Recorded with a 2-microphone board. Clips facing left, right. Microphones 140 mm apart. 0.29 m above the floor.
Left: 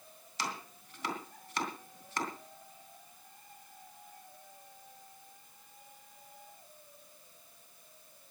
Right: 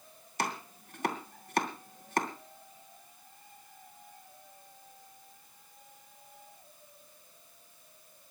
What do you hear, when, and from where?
0.4 s chopping: 55° right (ahead or behind), 2.5 m